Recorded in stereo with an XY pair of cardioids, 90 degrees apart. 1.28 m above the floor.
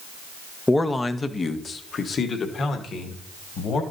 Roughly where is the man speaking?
Ahead.